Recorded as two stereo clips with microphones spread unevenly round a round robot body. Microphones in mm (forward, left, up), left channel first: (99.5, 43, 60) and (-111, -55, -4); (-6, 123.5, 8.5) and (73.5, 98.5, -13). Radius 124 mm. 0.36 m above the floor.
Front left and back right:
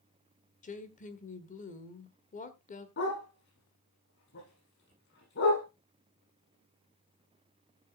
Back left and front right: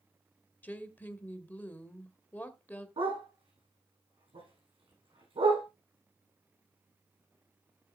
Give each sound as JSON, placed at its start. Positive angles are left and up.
{"t": 0.6, "sound": "a woman speaking", "azimuth_deg": 85, "distance_m": 1.6}
{"t": 3.0, "sound": "a dog barking", "azimuth_deg": -20, "distance_m": 8.5}